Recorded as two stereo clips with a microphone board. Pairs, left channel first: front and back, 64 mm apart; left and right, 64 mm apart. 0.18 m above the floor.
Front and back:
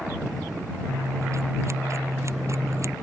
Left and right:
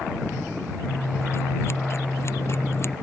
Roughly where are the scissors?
Behind left.